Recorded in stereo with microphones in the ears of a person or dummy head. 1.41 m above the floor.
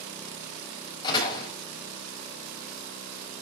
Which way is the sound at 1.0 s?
30° left (ahead or behind).